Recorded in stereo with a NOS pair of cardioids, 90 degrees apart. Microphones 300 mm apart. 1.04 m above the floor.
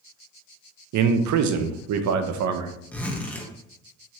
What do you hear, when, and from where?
0.9 s a man speaking: 65° right, 0.6 m
2.9 s a zipper: 5° left, 0.6 m